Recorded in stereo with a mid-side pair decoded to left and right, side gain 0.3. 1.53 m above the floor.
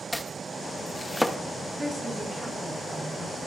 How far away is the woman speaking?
About 4 m.